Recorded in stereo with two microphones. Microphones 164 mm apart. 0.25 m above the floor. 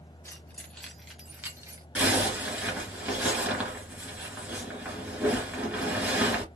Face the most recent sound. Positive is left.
turn(degrees=-10)  # may be behind; listen again after turning